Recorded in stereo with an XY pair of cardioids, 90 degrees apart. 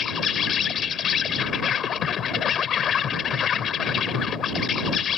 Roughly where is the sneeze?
I don't hear a sneeze.